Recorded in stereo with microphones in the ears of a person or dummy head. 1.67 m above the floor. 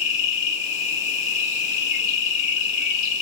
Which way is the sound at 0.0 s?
40° left (ahead or behind).